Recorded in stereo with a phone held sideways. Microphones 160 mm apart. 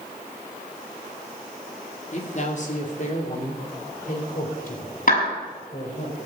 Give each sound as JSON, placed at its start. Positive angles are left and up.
{"t": 2.1, "sound": "a man speaking", "side_deg": 45, "distance_m": 2.0}
{"t": 5.1, "sound": "a clap", "side_deg": 65, "distance_m": 6.0}